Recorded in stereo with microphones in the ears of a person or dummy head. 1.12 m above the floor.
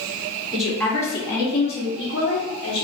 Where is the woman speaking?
Centre (ahead or behind), 0.8 m; by 2.8 s 30° left (ahead or behind), 1.2 m.